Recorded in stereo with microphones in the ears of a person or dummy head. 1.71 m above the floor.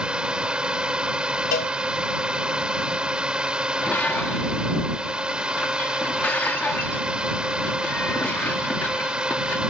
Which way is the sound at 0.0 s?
10° right (ahead or behind).